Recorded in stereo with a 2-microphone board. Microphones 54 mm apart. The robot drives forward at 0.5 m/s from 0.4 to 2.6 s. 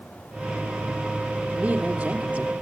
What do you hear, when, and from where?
1.5 s a woman speaking: 30° right (ahead or behind), 3 m; by 2.5 s 25° right (ahead or behind), 3.5 m